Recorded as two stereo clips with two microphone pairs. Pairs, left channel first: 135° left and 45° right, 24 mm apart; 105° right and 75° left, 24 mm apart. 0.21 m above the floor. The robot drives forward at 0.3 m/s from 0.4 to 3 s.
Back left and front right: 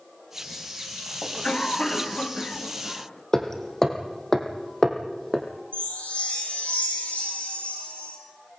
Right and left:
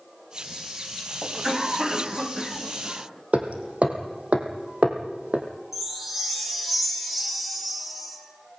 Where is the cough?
115° left, 1.4 m; by 3.2 s 145° left, 1.6 m.